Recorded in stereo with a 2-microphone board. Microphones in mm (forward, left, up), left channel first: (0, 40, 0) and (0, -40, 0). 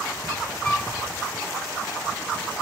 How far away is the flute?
About 1.8 m.